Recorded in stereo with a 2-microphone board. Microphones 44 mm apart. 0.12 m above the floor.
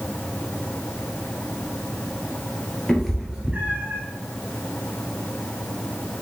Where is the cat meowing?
10° left (ahead or behind), 1.1 m; by 4.0 s 50° right (ahead or behind), 1.1 m.